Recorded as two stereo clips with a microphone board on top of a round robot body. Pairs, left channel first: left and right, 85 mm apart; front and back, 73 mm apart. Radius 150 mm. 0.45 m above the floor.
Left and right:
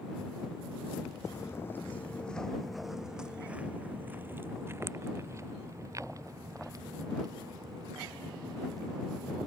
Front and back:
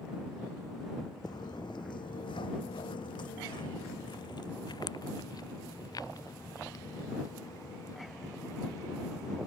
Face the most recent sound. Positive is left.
turn(degrees=-45)